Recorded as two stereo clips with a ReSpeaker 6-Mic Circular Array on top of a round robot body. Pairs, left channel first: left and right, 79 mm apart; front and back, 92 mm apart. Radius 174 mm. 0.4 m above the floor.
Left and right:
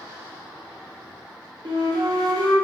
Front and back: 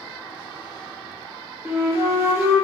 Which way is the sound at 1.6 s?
115° right.